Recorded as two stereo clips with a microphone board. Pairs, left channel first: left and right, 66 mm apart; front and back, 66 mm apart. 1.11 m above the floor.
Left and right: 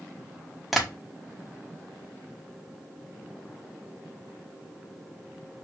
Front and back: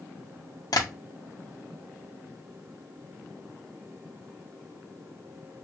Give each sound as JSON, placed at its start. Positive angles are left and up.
{"t": 0.7, "sound": "tapping", "azimuth_deg": 0, "distance_m": 1.2}